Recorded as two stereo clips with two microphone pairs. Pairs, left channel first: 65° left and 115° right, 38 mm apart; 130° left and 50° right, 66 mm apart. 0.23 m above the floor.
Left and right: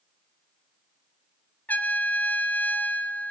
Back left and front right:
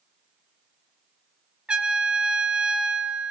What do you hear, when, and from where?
1.7 s a trumpet: 25° left, 2 m